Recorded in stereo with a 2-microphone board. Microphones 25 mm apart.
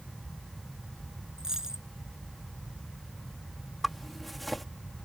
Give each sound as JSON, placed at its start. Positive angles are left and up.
{"t": 1.4, "sound": "a dropped coin", "side_deg": -25}
{"t": 3.8, "sound": "a zipper", "side_deg": 5}